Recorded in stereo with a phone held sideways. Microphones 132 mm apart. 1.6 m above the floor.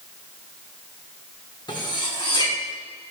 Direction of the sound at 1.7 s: 35° left (ahead or behind).